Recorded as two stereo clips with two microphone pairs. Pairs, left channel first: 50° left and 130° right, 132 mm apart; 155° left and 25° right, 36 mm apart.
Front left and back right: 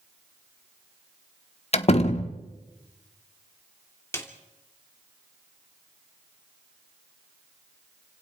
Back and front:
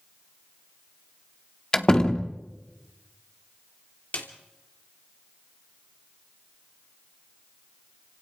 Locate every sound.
1.7 s a door slam: 90° left, 1.3 m
4.1 s a snare drum: 120° left, 2.5 m